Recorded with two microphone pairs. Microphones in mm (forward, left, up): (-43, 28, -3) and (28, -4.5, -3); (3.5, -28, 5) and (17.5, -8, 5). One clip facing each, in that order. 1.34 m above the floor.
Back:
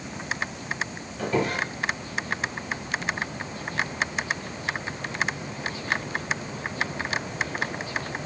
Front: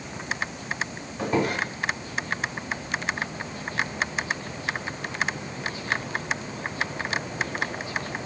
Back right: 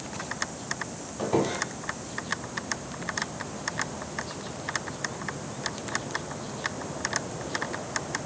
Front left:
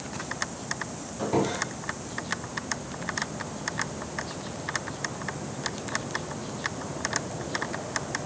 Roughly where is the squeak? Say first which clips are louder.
Front 1 dB, even; ahead right.